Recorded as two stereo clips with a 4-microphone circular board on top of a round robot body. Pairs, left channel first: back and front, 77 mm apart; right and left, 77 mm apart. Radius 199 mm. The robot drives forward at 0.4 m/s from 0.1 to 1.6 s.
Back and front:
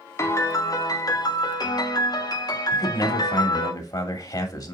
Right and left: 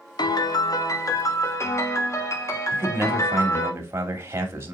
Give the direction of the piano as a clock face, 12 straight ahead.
4 o'clock.